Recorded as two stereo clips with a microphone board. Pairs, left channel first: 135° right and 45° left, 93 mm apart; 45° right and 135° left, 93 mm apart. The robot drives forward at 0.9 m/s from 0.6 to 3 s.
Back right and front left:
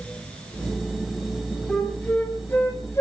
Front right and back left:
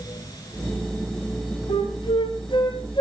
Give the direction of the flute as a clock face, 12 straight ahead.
2 o'clock.